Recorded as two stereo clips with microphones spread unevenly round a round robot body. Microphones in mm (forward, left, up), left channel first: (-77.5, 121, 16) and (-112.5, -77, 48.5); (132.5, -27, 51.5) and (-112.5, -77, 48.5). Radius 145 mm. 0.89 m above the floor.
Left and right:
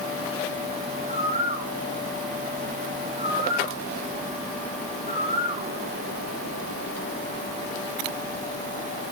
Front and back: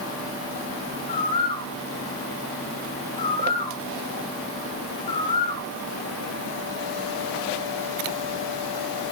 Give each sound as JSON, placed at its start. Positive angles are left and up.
{"t": 1.1, "sound": "a bird", "azimuth_deg": -50, "distance_m": 0.9}